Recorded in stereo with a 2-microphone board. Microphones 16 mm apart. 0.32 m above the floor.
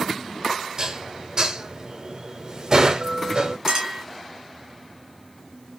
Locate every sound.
0.8 s dishes clattering: 30° right (ahead or behind), 0.7 m
3.7 s a clink: 45° right (ahead or behind), 2.0 m